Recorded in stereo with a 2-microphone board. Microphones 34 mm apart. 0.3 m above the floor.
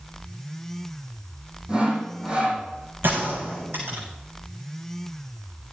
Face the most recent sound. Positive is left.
turn(degrees=-75)  # may be behind; listen again after turning